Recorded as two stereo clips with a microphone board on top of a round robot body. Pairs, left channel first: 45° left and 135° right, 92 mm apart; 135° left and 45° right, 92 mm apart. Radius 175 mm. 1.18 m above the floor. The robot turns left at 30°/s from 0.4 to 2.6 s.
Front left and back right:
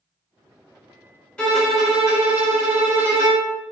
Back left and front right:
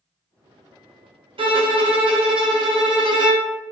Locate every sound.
1.4 s a violin: 35° right, 0.8 m; by 3.5 s 75° right, 0.8 m